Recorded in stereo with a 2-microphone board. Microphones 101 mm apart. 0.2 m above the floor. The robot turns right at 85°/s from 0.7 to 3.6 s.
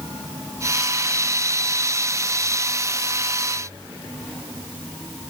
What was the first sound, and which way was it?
Only background noise.